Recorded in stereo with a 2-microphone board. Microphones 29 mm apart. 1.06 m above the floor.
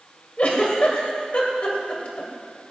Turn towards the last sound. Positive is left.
turn(degrees=50)  # may be behind; listen again after turning